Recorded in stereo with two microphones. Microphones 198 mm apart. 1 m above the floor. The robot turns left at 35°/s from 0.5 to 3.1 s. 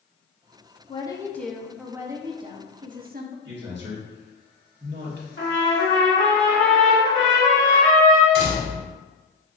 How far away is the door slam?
About 1.9 m.